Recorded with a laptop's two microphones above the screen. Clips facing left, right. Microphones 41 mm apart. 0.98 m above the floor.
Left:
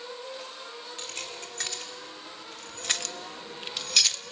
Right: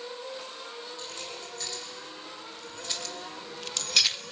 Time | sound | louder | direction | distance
1.0 | keys jangling | left 1 dB | 80° left | 2.5 m